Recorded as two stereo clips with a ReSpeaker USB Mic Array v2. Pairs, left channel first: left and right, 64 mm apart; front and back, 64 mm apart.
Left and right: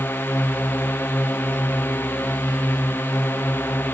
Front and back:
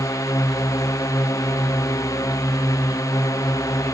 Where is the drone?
35° left.